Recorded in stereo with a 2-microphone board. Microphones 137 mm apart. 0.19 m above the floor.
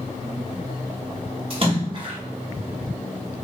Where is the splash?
40° right (ahead or behind), 1.1 m.